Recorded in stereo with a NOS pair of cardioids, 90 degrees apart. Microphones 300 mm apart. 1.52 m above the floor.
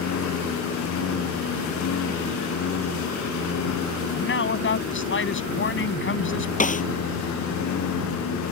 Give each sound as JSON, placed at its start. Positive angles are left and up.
{"t": 0.0, "sound": "a lawn mower", "azimuth_deg": 65}
{"t": 4.1, "sound": "a man speaking", "azimuth_deg": 40}
{"t": 6.6, "sound": "a snare drum", "azimuth_deg": 25}